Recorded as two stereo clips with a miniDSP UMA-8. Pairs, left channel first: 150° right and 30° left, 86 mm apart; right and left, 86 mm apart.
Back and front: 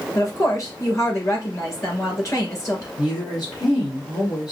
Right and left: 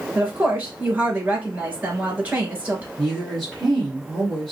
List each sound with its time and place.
0.1 s a woman speaking: 160° left, 2.5 m
3.0 s a woman speaking: 175° right, 3 m